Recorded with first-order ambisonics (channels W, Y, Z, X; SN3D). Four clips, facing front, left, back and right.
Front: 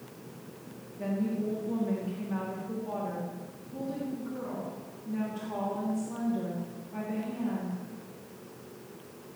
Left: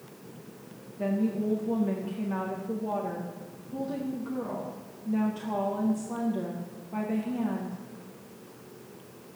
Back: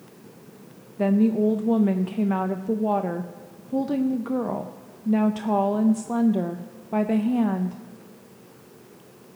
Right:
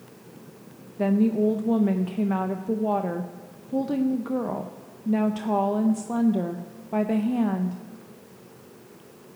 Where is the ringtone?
No ringtone in this recording.